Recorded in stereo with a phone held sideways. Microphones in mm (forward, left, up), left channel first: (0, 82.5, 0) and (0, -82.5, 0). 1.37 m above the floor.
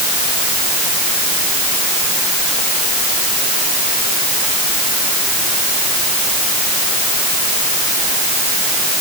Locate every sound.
Only background noise.